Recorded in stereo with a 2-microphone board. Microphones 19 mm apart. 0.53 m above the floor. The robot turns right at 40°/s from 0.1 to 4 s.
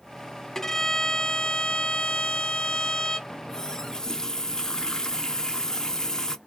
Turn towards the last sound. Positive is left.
turn(degrees=35)  # may be behind; listen again after turning